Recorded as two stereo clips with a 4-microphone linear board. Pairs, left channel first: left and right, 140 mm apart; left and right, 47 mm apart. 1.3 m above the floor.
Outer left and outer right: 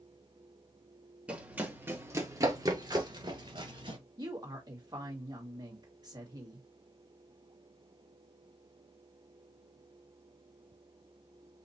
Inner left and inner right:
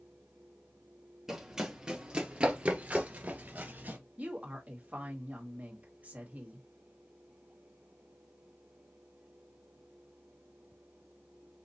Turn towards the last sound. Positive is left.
turn(degrees=-30)  # may be behind; listen again after turning